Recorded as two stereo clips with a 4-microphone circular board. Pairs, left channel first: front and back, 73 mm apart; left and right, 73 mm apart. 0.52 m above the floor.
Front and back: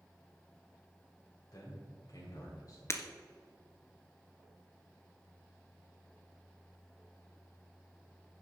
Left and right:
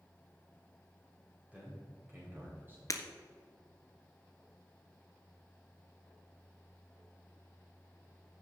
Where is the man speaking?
20° right, 2.5 m; by 2.8 s 30° right, 3 m.